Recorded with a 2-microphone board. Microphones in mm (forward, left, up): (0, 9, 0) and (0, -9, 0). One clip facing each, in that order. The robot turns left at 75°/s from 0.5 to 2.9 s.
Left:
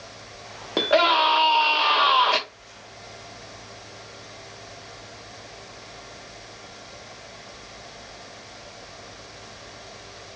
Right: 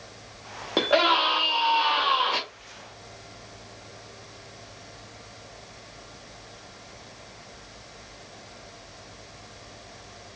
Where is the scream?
175° right, 0.9 m; by 2.4 s 60° left, 0.9 m.